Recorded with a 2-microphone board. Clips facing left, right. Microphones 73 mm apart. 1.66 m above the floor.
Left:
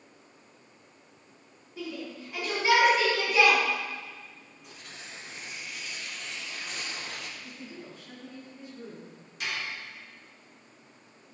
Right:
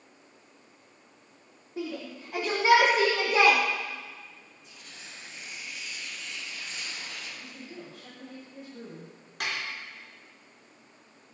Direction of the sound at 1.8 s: 50° right (ahead or behind).